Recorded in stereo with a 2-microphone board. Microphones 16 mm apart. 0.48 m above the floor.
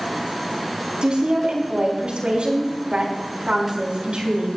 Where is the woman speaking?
70° right (ahead or behind), 4.5 m.